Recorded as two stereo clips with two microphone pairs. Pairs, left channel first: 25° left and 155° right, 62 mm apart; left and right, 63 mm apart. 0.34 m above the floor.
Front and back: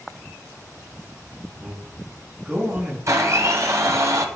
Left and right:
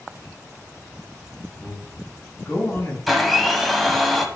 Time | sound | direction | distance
1.6 | a man speaking | 135° left | 4.5 m
3.1 | a blender | straight behind | 1.3 m